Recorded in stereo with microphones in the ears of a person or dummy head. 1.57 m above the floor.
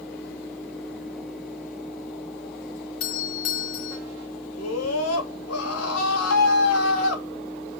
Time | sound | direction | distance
3.0 | a doorbell | 50° left (ahead or behind) | 1.7 m
4.6 | a scream | 85° left | 3.5 m